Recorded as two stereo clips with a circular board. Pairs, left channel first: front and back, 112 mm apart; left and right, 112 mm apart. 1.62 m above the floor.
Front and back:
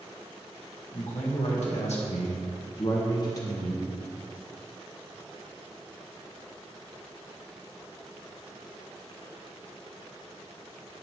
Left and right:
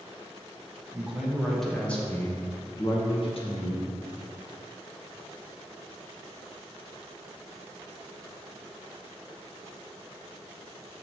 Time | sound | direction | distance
0.9 | a man speaking | 10° right | 2 m